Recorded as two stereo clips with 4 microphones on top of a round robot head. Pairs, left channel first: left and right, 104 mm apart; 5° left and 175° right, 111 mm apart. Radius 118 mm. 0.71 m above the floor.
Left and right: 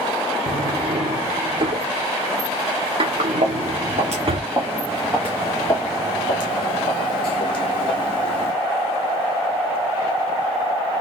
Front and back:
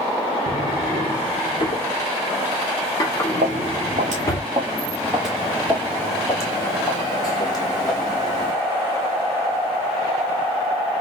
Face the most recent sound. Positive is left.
turn(degrees=55)